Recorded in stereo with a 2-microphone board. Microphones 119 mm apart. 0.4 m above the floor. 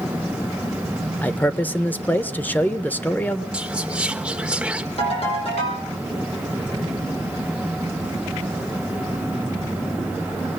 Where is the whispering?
10° right (ahead or behind), 1.3 m.